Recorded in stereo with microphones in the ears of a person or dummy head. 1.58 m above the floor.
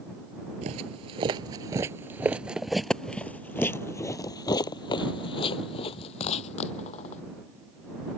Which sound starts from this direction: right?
Footsteps, at 0.6 s.